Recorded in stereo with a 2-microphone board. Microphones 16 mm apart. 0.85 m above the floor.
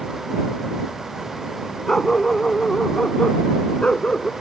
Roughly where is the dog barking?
Left.